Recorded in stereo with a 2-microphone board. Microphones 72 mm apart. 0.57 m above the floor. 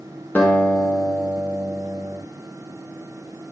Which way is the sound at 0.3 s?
25° left (ahead or behind).